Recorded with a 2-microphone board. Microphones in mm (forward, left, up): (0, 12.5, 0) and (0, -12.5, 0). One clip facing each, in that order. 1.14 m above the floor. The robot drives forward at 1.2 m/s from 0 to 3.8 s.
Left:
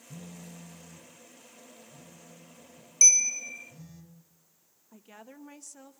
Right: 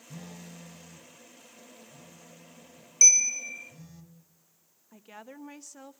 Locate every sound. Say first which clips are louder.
0.1 s a phone buzzing: right 1 dB; 65° right (ahead or behind), 0.6 m; by 4.0 s 5° right (ahead or behind), 4.5 m
3.0 s a bell: right 1 dB; 5° right (ahead or behind), 1.3 m
4.9 s a woman speaking: right 3 dB; 25° right (ahead or behind), 1.1 m